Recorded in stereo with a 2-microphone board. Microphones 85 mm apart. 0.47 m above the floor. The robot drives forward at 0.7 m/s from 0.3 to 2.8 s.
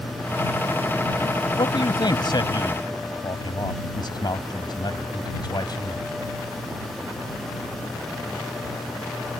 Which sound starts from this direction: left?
A man speaking, at 1.6 s.